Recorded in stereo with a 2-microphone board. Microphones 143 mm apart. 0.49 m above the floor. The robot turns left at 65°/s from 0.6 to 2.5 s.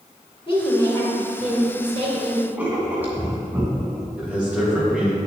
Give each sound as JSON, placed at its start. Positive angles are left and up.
{"t": 0.5, "sound": "a woman speaking", "azimuth_deg": 45, "distance_m": 2.5}
{"t": 2.6, "sound": "writing", "side_deg": -15, "distance_m": 1.6}
{"t": 4.2, "sound": "a man speaking", "side_deg": -10, "distance_m": 2.5}